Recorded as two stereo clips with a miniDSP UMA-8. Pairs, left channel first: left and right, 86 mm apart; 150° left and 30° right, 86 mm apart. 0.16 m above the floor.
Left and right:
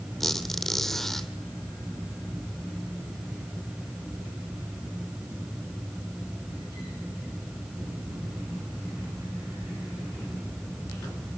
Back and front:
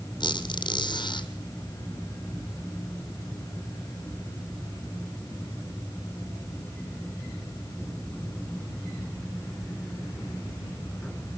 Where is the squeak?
175° left, 2 m.